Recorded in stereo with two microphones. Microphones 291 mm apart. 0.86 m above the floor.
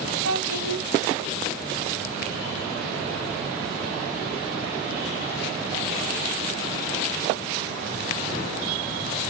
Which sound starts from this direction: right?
A child speaking, at 0.2 s.